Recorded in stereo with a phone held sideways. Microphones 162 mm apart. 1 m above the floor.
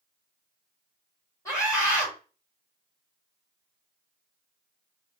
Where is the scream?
20° left (ahead or behind), 3.5 m.